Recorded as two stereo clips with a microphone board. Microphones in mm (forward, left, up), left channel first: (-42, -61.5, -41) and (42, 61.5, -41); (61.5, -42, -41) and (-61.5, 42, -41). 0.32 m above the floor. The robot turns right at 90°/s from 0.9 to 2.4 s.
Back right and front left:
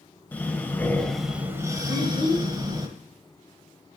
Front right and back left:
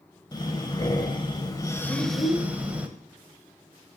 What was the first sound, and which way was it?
Breathing, 60° right.